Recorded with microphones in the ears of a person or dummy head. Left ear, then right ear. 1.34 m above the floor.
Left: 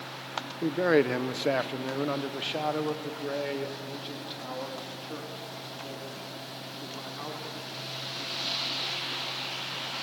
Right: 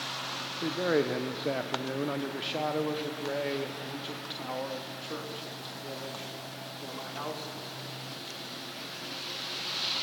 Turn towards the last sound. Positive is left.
turn(degrees=-15)  # may be behind; listen again after turning